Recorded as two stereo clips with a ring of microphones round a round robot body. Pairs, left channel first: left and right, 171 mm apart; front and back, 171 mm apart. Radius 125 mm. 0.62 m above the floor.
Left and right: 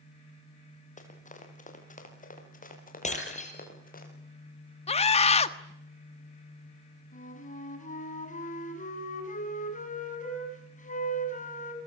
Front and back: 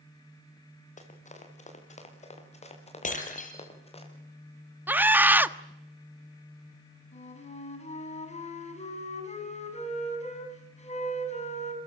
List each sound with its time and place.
1.0 s running footsteps: 45° left, 7.5 m; by 4.0 s 55° left, 9 m
3.0 s breaking glass: 45° left, 7 m
4.9 s a scream: 110° left, 1.4 m
7.1 s a flute: 50° left, 7 m